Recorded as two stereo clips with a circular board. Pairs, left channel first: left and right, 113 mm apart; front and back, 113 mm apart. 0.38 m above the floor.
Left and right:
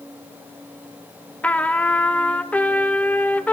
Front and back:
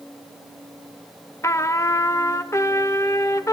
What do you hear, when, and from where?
1.4 s a trumpet: 25° left, 0.7 m